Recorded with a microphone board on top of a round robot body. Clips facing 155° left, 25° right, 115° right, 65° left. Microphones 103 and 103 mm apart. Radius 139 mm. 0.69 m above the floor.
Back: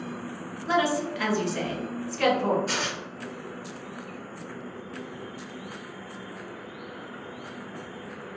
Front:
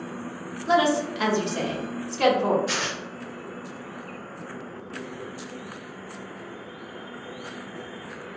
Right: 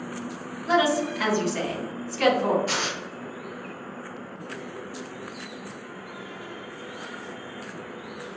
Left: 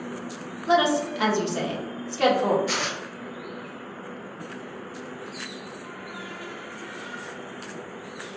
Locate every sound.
0.7 s a woman speaking: 25° left, 1.2 m
2.7 s tearing paper: 155° right, 0.5 m